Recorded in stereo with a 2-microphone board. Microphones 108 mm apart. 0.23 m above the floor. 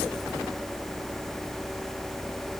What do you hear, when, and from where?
Only background noise.